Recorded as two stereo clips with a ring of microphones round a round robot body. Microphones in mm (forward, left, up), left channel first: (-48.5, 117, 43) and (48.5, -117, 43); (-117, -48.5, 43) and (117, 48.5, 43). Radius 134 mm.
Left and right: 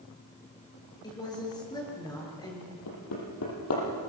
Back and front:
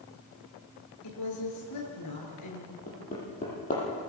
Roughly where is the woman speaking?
Behind.